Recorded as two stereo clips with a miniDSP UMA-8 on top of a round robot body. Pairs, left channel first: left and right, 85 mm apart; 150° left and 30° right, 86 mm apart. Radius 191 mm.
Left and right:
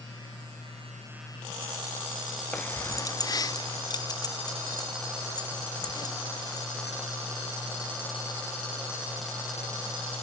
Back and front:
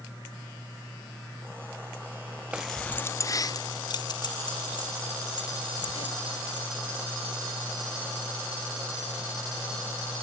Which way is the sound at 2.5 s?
30° left.